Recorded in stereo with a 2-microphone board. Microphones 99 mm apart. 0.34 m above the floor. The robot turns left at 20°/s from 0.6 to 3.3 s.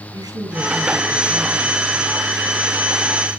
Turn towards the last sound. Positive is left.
turn(degrees=165)